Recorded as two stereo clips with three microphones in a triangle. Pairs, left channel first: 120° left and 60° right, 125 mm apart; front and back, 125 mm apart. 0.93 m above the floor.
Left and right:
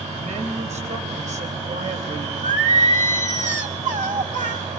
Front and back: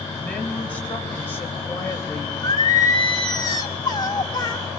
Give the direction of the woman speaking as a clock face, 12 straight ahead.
3 o'clock.